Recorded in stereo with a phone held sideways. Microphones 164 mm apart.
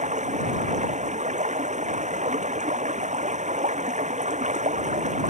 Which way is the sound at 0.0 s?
45° right (ahead or behind).